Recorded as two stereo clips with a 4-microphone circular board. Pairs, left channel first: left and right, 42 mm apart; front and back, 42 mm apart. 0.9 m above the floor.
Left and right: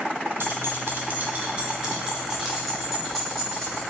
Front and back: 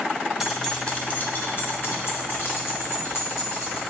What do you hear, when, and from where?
0.4 s keys jangling: 95° right, 0.6 m; by 3.8 s 5° left, 1.9 m